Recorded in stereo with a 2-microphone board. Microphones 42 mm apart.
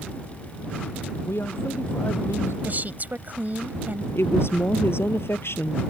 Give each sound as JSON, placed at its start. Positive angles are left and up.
{"t": 1.2, "sound": "a man speaking", "side_deg": 80}
{"t": 2.6, "sound": "a woman speaking", "side_deg": -45}
{"t": 4.2, "sound": "a woman speaking", "side_deg": 70}